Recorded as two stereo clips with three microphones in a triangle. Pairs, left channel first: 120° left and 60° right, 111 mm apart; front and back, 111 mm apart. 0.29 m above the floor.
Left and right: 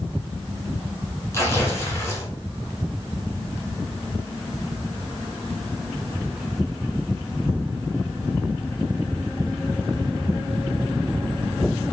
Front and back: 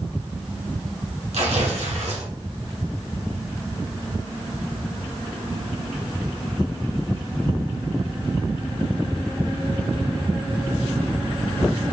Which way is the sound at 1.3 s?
175° right.